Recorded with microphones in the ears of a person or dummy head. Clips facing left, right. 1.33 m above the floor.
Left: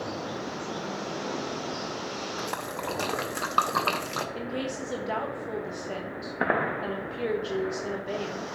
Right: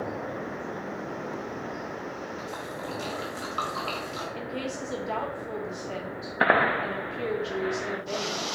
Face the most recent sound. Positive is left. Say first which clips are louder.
# left 1 dB
turn(degrees=15)  # may be behind; listen again after turning